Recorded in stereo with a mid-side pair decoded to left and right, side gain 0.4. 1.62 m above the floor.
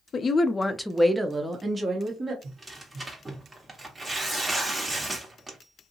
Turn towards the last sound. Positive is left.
turn(degrees=-25)